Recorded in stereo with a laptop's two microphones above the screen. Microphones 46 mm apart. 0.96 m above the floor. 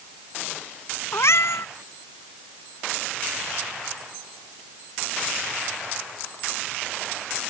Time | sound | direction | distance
1.1 | a cat meowing | 70° left (ahead or behind) | ?